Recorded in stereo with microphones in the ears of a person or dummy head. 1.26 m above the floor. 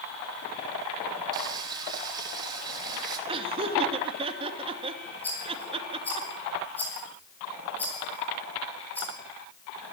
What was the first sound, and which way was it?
Frying, 25° right (ahead or behind).